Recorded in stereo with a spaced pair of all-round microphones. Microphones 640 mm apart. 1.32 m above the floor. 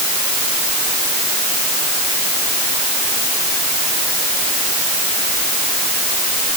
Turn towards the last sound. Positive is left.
No sound to turn to.